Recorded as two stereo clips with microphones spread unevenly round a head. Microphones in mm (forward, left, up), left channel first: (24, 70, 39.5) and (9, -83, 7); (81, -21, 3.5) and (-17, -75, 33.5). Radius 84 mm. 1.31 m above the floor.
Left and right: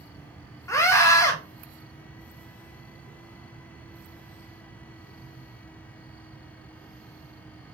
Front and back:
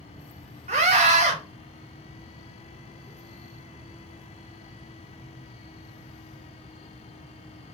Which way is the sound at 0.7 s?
160° left.